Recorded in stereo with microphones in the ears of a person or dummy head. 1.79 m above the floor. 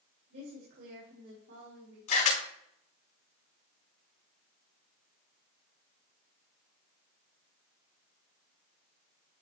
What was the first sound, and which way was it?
A woman speaking, 65° right (ahead or behind).